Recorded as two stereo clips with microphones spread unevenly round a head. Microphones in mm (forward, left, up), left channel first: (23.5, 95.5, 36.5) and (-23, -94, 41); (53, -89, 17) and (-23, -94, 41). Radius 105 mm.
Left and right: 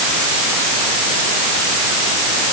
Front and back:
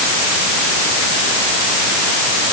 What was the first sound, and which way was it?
Only background noise.